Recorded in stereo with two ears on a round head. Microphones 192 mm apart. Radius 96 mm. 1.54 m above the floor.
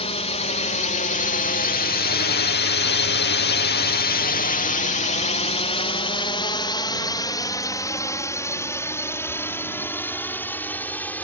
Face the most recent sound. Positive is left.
turn(degrees=10)  # may be behind; listen again after turning